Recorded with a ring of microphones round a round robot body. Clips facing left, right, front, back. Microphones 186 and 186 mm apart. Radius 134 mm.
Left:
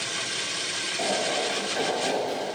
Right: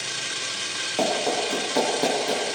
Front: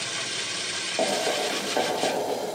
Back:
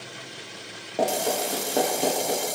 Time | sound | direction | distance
1.0 | running footsteps | 105° right | 7 m